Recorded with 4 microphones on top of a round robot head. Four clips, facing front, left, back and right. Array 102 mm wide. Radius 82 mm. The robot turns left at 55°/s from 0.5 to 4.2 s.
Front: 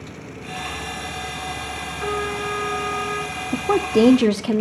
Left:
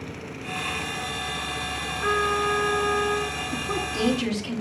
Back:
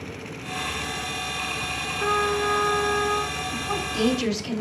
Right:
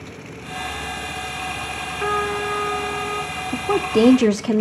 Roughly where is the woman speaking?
Ahead.